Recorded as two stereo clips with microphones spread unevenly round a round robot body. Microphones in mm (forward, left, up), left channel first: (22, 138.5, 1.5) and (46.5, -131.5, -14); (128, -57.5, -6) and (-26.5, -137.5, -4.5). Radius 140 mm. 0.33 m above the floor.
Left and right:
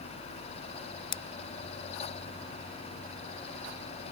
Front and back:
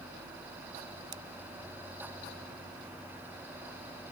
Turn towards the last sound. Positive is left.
turn(degrees=140)